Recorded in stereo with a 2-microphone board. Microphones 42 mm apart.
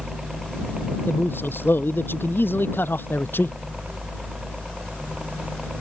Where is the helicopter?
15° right (ahead or behind); by 5.8 s 20° right (ahead or behind).